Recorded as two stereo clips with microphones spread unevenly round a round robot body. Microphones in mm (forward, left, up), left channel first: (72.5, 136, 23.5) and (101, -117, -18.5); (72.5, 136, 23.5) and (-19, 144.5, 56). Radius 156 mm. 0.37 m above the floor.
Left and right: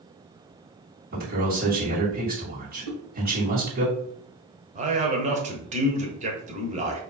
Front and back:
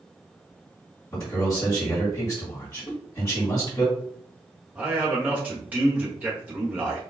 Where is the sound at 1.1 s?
50° right, 2.5 m.